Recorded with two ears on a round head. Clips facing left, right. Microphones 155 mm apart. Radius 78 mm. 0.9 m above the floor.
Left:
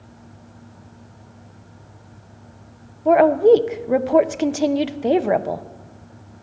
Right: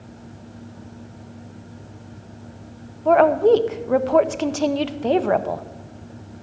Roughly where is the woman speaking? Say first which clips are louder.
Left 2 dB; centre.